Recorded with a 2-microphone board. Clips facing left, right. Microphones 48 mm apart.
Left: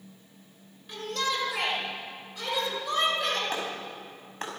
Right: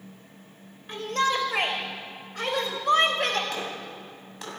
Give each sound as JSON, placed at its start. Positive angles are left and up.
{"t": 0.9, "sound": "a shout", "side_deg": -40, "distance_m": 4.5}
{"t": 3.5, "sound": "a clap", "side_deg": 40, "distance_m": 5.5}